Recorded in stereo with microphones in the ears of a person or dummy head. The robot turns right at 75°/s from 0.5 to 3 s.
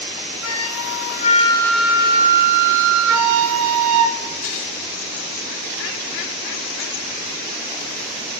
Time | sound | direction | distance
0.4 | a flute | 85° left | 1.0 m